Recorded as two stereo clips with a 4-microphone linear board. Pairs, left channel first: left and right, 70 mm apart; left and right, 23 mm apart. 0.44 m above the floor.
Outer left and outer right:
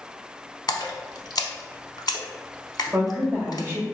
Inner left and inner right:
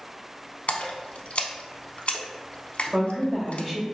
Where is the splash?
70° left (ahead or behind), 0.6 m.